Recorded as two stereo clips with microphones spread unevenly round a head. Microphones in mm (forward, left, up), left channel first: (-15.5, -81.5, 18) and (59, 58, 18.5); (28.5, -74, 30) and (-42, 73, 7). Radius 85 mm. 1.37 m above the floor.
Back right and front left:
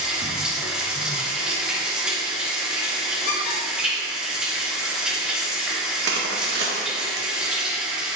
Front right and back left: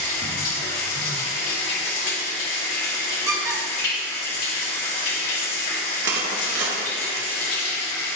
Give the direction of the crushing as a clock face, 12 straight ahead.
9 o'clock.